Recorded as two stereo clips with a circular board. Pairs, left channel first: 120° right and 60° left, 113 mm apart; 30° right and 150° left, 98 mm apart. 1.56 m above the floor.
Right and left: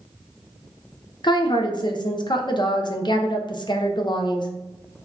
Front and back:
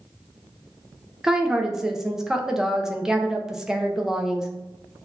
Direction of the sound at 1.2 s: 125° right.